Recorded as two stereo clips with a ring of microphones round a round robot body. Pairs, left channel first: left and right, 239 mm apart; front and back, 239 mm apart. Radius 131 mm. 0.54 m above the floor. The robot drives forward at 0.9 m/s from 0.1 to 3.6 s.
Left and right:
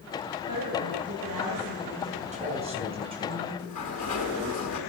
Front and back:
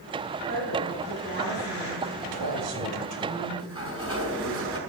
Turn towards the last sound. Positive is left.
turn(degrees=110)